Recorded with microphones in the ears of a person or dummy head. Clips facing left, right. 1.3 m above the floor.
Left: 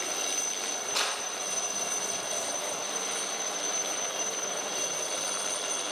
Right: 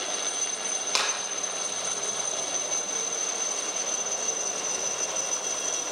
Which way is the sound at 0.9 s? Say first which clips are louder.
Right 3 dB; 85° right.